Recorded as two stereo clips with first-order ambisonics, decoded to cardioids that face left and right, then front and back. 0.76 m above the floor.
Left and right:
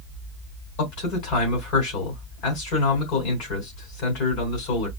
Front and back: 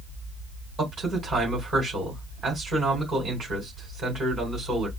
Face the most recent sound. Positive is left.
turn(degrees=105)